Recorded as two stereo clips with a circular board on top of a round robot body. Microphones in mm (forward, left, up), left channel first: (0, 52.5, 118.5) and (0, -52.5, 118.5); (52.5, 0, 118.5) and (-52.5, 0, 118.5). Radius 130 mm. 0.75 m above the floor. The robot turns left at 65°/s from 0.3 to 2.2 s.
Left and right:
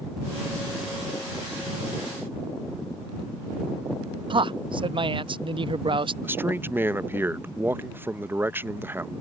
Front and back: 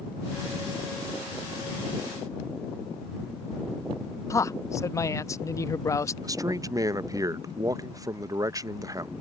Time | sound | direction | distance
4.3 | a man speaking | 60° right | ?
6.2 | a man speaking | 150° right | ?